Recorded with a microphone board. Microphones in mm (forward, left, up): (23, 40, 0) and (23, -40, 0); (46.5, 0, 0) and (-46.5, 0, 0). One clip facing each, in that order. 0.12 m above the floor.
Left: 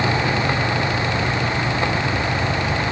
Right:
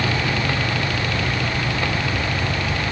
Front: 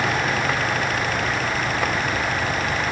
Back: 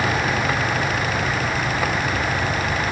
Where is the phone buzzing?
No phone buzzing in this recording.